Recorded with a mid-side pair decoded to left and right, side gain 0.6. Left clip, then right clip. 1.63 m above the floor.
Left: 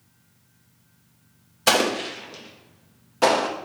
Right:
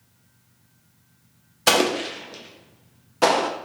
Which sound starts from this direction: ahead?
An explosion, at 1.7 s.